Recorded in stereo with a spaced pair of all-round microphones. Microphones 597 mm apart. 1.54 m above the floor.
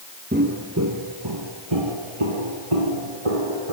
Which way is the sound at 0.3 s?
15° right (ahead or behind).